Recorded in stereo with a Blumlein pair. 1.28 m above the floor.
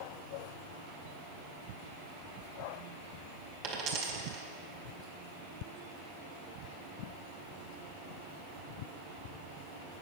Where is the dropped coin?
40° right, 2 m.